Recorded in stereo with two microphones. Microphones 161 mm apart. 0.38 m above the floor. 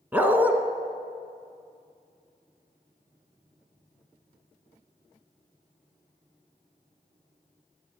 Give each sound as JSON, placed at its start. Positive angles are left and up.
{"t": 0.1, "sound": "a dog barking", "side_deg": -10, "distance_m": 1.0}